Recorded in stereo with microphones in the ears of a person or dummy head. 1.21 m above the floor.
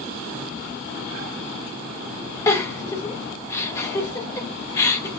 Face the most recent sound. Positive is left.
turn(degrees=25)  # may be behind; listen again after turning